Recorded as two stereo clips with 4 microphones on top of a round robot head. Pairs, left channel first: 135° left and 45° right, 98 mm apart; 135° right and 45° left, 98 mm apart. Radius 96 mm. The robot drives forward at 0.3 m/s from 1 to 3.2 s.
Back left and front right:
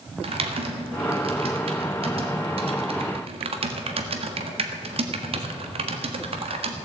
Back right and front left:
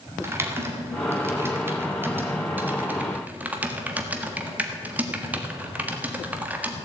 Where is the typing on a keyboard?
20° right, 2 m; by 6.8 s 30° right, 1.6 m.